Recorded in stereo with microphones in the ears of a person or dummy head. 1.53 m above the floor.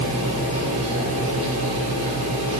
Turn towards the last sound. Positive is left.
turn(degrees=-45)  # may be behind; listen again after turning